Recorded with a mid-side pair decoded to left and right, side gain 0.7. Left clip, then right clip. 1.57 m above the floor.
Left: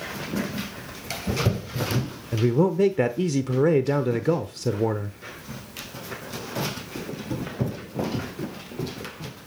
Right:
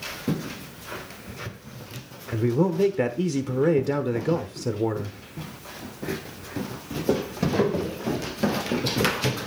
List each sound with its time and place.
2.3 s a man speaking: 10° left, 0.9 m